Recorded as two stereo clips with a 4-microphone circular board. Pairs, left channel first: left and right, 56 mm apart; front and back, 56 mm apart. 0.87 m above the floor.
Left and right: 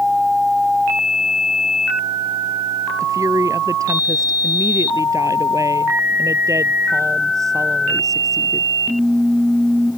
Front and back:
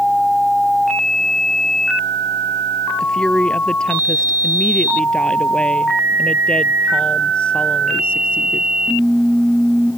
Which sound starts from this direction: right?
A woman speaking, at 3.0 s.